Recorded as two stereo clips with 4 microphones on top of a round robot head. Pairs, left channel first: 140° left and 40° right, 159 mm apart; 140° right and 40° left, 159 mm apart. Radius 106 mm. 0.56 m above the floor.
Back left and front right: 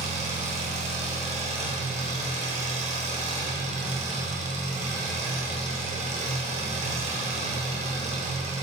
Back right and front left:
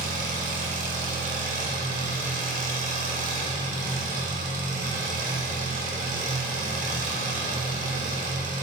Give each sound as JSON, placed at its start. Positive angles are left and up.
{"t": 0.0, "sound": "an engine running", "azimuth_deg": 5, "distance_m": 2.0}